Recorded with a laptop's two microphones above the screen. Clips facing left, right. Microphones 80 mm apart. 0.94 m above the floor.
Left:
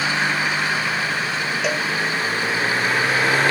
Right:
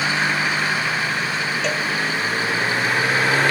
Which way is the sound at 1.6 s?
5° left (ahead or behind).